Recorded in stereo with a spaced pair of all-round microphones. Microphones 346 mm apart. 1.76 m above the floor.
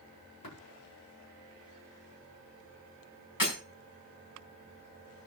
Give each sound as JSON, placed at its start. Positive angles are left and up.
{"t": 0.4, "sound": "tapping", "side_deg": 75, "distance_m": 9.0}
{"t": 3.4, "sound": "breaking glass", "side_deg": 65, "distance_m": 5.5}